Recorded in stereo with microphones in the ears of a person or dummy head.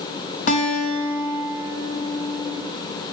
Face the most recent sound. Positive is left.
turn(degrees=55)  # may be behind; listen again after turning